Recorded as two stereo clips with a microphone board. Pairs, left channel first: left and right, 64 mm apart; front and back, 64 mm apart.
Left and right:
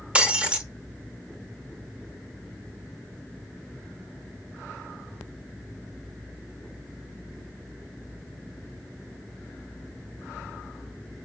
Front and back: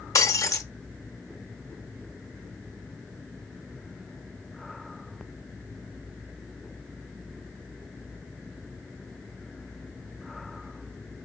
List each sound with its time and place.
0.1 s breaking glass: 20° right, 0.7 m